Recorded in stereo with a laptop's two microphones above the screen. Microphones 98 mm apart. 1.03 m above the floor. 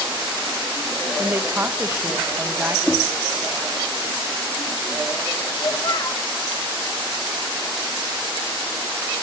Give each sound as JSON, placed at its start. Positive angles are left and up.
{"t": 1.2, "sound": "a woman speaking", "side_deg": -25, "distance_m": 1.2}
{"t": 2.9, "sound": "knocking", "side_deg": 15, "distance_m": 1.1}
{"t": 5.6, "sound": "a child speaking", "side_deg": 45, "distance_m": 1.9}